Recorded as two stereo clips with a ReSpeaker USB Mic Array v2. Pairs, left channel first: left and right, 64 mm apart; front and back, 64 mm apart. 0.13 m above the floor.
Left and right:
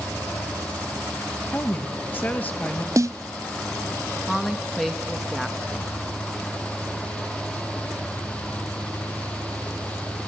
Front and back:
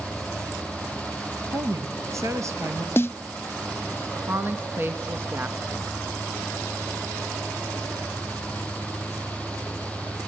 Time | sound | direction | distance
1.5 | a woman speaking | 150° left | 2.5 m
3.0 | a snare drum | 55° right | 1.0 m
4.3 | a woman speaking | 175° right | 1.2 m